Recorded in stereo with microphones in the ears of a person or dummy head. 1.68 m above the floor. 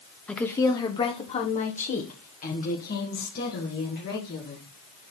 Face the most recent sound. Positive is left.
turn(degrees=55)  # may be behind; listen again after turning